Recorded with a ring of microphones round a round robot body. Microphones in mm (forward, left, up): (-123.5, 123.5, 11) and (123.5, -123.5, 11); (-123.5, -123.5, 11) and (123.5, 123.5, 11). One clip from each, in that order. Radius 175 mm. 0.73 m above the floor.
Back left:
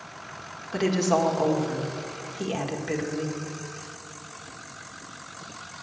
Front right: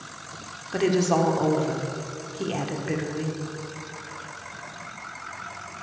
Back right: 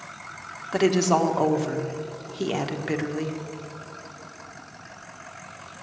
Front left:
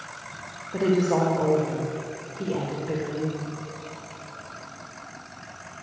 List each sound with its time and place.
0.7 s a woman speaking: 135° right, 1.6 m